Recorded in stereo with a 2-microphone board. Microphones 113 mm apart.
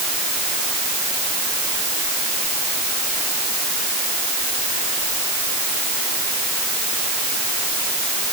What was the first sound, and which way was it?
Only background noise.